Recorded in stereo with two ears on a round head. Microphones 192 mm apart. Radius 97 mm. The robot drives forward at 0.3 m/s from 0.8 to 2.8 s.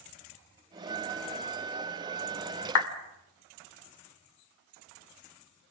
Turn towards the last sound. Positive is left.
turn(degrees=70)  # may be behind; listen again after turning